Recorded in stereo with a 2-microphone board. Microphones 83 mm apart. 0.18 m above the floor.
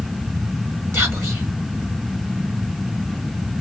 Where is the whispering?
30° right (ahead or behind), 2.0 m.